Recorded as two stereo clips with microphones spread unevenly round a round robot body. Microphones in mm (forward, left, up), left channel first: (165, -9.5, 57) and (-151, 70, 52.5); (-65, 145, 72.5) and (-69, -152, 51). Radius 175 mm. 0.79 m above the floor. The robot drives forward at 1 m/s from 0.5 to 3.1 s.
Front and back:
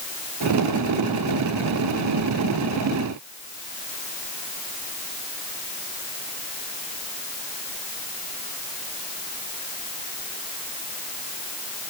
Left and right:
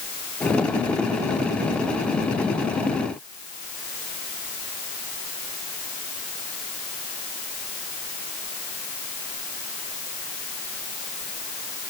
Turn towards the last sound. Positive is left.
No sound to turn to.